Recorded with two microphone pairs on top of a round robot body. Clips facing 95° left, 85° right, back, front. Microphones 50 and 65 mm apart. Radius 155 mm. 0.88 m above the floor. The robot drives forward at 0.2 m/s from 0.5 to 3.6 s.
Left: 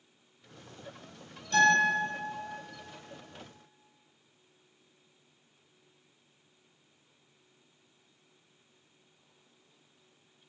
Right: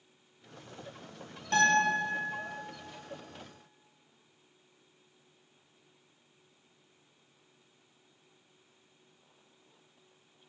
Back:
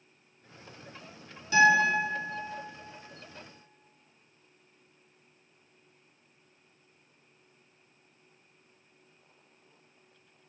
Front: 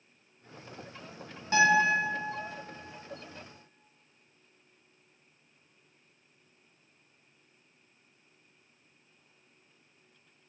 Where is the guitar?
50° right, 1.5 m.